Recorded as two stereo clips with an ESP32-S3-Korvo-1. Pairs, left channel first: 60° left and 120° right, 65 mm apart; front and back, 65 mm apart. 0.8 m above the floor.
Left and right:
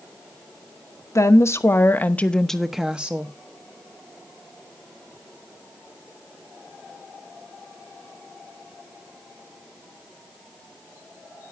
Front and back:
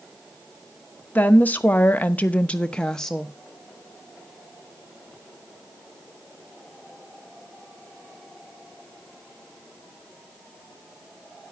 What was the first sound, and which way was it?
A woman speaking, 55° left.